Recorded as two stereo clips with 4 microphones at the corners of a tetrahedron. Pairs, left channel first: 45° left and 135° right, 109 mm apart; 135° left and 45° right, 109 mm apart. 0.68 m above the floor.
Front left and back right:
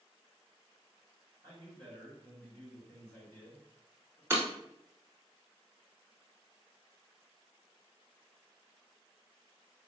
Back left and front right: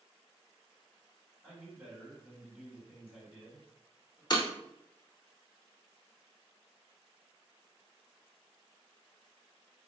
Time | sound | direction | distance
1.4 | a man speaking | 110° right | 2.0 m
4.3 | breaking glass | 165° left | 0.8 m